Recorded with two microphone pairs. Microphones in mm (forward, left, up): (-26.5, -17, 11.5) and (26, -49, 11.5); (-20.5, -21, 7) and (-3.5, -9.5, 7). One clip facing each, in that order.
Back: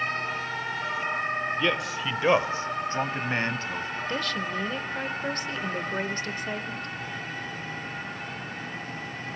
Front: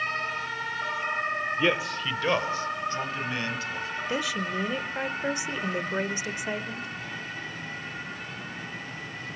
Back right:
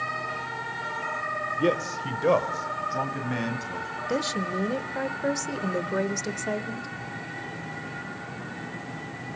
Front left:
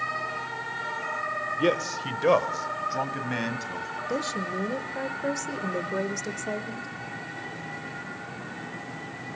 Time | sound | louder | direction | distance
1.6 | a man speaking | front 1 dB, front left 1 dB | 20° left | 0.9 m
4.1 | a woman speaking | front 1 dB, back right 2 dB | 100° right | 1.1 m